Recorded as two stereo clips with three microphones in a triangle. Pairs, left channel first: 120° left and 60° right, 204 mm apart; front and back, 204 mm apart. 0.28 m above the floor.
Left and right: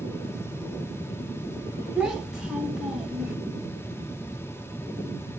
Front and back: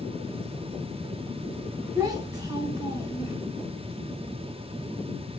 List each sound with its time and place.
1.9 s a child speaking: 140° right, 1.1 m